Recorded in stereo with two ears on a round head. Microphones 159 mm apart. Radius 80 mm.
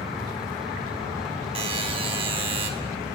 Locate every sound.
1.6 s a buzzer: 30° right (ahead or behind), 0.8 m